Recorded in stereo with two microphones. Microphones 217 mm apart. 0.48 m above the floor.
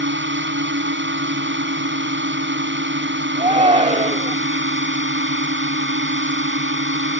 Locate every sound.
0.0 s a drone: 60° right (ahead or behind)
3.4 s a shout: 30° right (ahead or behind)